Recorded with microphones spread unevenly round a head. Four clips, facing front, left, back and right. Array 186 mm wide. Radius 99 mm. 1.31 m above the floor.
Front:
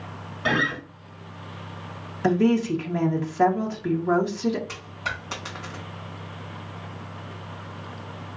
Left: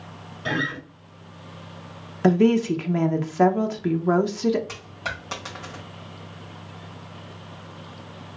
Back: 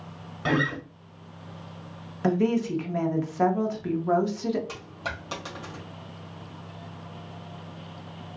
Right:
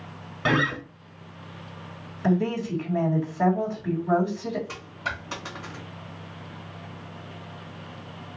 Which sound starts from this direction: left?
A woman speaking, at 2.2 s.